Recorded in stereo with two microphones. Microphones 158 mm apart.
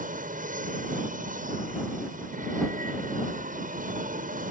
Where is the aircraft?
55° right (ahead or behind).